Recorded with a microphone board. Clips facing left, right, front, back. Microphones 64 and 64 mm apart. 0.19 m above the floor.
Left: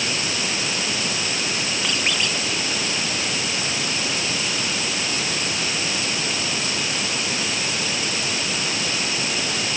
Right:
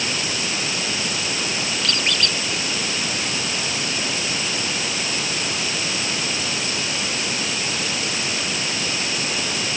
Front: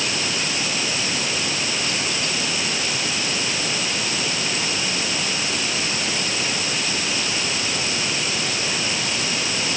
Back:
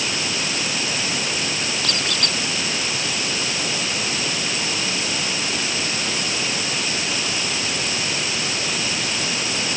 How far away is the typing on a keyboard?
I don't hear typing on a keyboard.